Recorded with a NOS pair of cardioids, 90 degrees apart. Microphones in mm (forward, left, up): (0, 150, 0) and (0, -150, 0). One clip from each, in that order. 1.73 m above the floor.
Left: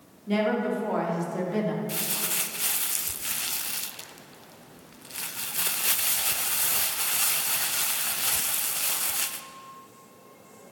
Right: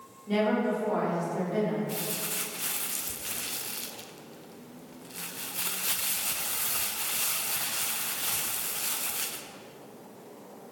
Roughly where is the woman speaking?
Ahead left.